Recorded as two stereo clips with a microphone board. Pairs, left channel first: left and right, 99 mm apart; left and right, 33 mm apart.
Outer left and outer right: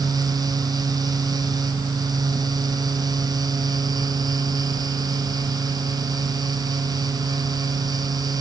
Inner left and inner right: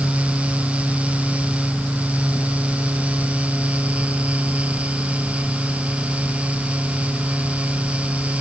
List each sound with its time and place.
Only background noise.